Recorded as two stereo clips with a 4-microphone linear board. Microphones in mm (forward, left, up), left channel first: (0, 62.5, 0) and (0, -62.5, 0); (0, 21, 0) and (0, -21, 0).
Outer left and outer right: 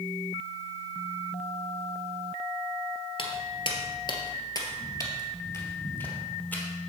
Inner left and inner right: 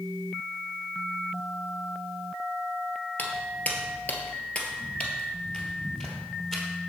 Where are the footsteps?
45° left (ahead or behind), 1.7 m; by 6.6 s 10° left (ahead or behind), 2.5 m.